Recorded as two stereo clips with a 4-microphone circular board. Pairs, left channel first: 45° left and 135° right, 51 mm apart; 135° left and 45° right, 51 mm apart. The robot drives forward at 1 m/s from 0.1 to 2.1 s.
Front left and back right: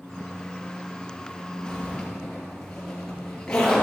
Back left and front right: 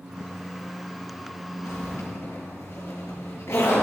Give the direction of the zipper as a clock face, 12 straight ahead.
8 o'clock.